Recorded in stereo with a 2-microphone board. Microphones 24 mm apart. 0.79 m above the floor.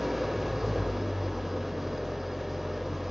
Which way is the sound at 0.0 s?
10° right (ahead or behind).